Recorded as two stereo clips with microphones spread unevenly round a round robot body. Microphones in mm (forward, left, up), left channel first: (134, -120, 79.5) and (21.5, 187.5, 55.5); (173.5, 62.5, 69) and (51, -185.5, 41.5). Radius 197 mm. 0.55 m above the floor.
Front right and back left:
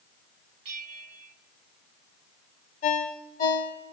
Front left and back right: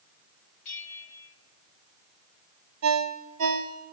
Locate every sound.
0.7 s a bell: 100° left, 2 m
2.8 s a ringtone: 140° right, 1.8 m